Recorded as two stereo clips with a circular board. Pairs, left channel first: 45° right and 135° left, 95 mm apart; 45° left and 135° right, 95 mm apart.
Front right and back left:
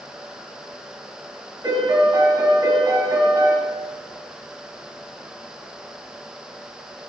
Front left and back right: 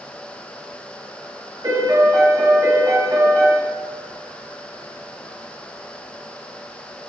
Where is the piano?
175° right, 2.5 m.